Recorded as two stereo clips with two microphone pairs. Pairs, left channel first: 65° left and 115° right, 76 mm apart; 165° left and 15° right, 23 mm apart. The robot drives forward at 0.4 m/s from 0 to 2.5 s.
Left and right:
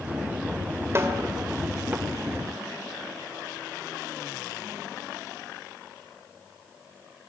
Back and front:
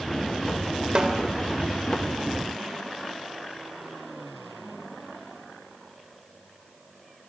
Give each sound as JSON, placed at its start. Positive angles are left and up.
{"t": 0.9, "sound": "a snare drum", "azimuth_deg": -65, "distance_m": 2.0}